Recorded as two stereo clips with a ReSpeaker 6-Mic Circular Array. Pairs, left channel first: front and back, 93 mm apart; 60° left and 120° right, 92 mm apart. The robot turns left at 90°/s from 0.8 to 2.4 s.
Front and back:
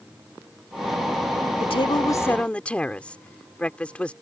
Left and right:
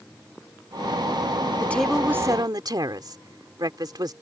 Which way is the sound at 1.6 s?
5° right.